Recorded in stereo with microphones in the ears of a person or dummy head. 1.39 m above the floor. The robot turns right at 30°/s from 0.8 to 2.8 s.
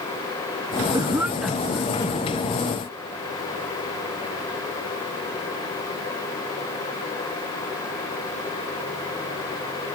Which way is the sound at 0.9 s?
20° right (ahead or behind).